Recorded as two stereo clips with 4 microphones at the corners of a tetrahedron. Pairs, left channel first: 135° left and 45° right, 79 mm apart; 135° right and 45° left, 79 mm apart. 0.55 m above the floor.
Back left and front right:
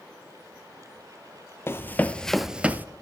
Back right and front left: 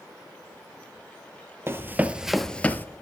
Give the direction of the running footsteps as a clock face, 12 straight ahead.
9 o'clock.